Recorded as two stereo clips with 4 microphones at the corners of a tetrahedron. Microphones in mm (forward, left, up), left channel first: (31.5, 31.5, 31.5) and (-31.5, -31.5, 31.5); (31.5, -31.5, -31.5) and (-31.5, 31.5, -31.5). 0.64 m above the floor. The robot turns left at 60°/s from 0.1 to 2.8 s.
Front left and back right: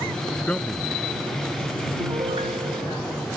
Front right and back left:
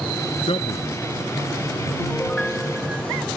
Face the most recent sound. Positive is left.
turn(degrees=-150)